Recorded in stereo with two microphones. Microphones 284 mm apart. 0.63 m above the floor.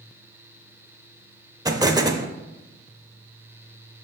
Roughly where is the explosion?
Centre.